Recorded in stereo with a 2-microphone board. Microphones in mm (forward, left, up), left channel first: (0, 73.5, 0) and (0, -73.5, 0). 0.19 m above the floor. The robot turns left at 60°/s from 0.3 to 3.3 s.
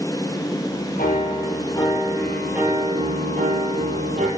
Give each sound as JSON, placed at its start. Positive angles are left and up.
{"t": 1.0, "sound": "a piano", "azimuth_deg": 85, "distance_m": 3.0}